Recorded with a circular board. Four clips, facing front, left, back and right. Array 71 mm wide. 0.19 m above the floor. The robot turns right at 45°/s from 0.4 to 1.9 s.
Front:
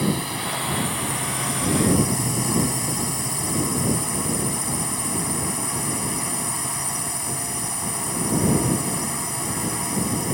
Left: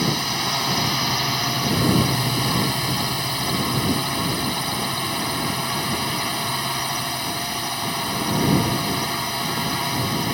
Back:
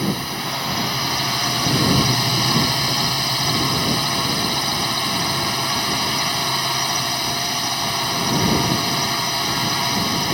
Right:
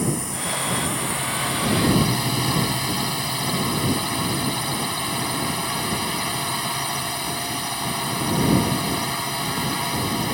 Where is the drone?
105° left; by 10.3 s 175° left.